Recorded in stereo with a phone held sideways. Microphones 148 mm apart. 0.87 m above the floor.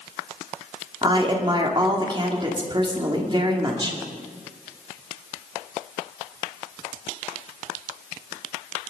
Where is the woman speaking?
35° right (ahead or behind), 2 m.